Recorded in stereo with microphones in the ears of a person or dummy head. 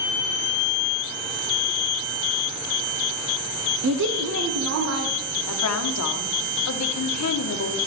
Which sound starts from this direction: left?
A woman speaking, at 5.5 s.